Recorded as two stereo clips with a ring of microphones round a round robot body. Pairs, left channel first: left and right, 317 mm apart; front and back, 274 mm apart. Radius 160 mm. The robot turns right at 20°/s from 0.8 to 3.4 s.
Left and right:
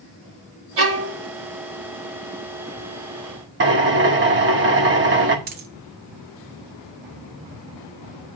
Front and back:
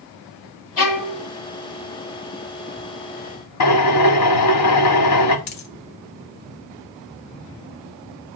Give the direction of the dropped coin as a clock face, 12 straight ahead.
1 o'clock.